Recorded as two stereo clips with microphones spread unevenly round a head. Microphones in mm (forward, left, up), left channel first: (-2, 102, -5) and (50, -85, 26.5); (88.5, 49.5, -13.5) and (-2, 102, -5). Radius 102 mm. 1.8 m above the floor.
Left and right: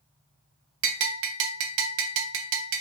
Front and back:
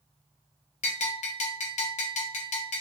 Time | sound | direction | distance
0.8 | a bell | 60° right | 0.6 m